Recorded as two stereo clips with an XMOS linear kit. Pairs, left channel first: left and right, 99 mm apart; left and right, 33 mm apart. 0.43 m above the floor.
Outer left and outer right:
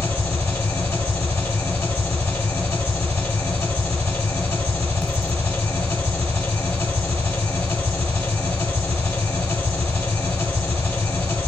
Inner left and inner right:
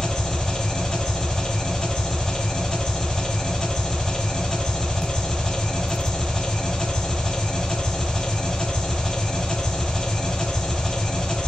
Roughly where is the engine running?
Centre.